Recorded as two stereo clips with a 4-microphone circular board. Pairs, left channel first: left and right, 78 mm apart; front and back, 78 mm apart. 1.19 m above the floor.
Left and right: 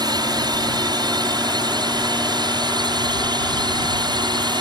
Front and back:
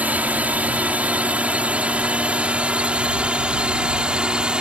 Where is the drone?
110° right; by 4.6 s 100° right.